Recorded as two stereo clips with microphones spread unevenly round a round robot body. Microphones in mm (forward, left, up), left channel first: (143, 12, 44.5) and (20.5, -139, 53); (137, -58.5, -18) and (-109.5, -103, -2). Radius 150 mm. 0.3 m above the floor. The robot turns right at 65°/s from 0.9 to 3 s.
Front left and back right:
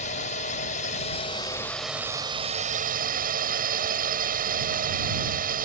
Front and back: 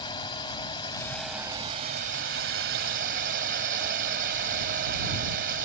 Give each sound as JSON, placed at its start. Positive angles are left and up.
{"t": 0.0, "sound": "a drone", "azimuth_deg": 80}